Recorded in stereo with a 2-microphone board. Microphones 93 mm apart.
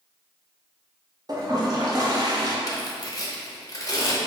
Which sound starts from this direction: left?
Tearing paper, at 2.7 s.